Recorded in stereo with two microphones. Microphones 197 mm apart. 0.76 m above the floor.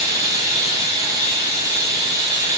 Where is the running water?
15° right (ahead or behind), 2 m.